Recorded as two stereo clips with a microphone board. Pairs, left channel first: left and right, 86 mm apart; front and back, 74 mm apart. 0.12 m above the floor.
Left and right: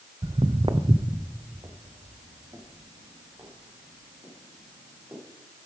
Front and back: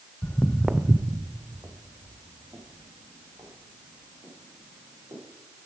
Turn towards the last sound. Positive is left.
turn(degrees=-145)